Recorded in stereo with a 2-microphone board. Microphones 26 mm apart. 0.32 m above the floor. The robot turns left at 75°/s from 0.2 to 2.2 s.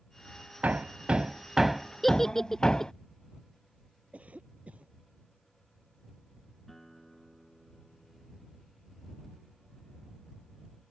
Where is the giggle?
10° left (ahead or behind); by 2.9 s 20° left (ahead or behind).